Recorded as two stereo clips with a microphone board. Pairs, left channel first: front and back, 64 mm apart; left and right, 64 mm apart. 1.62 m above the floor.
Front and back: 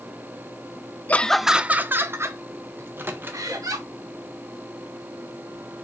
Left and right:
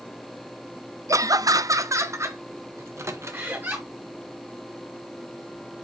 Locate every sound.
1.1 s laughter: 65° right, 0.5 m; by 3.8 s 145° right, 2 m
2.8 s a microwave: 125° right, 1.3 m